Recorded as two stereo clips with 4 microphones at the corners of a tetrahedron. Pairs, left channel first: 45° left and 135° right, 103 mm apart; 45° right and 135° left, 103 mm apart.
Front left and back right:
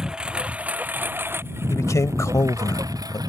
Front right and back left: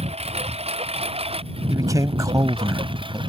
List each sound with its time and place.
0.0 s a lawn mower: 140° left; by 3.3 s 175° left
1.7 s a man speaking: 95° left